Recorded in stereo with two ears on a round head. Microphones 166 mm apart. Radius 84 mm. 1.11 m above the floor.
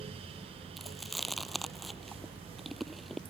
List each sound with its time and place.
0.8 s chewing: centre (ahead or behind)